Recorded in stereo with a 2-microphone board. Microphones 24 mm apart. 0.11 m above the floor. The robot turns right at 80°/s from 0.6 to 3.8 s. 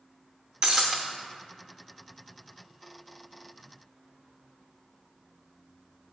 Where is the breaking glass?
40° right (ahead or behind), 0.6 m; by 1.0 s 10° right (ahead or behind), 0.6 m.